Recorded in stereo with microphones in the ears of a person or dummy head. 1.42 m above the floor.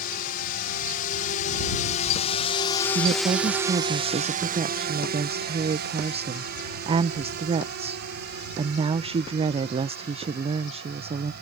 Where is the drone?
55° left (ahead or behind); by 11.4 s 60° right (ahead or behind).